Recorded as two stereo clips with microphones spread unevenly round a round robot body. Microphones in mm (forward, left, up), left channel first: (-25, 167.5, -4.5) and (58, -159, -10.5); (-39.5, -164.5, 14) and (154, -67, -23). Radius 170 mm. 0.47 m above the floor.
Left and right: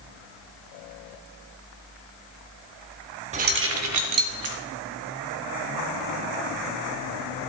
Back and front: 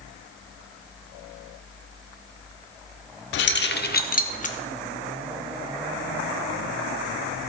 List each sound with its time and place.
3.3 s keys jangling: 140° right, 0.6 m; by 4.5 s 95° right, 1.1 m